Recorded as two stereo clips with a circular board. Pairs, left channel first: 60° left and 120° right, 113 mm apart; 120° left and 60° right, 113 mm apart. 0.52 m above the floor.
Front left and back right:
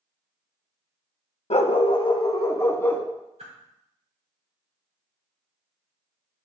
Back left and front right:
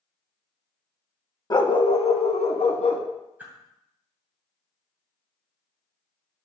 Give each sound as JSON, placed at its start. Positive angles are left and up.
{"t": 1.5, "sound": "a dog barking", "azimuth_deg": 70, "distance_m": 0.5}
{"t": 3.4, "sound": "a whoosh", "azimuth_deg": -135, "distance_m": 2.0}